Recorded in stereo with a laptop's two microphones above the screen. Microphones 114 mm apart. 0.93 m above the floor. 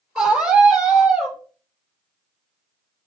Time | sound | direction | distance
0.1 | a scream | 10° right (ahead or behind) | 4 m